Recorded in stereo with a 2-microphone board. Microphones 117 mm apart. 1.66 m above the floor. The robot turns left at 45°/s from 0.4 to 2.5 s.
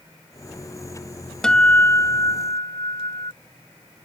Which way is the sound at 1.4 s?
175° left.